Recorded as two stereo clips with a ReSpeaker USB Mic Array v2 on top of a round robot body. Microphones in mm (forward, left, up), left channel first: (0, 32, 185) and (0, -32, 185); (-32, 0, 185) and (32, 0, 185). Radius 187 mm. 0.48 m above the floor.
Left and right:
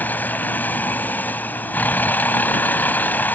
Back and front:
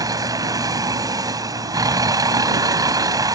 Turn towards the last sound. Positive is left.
turn(degrees=25)